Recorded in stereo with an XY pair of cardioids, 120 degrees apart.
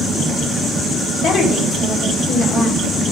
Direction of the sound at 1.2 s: 70° left.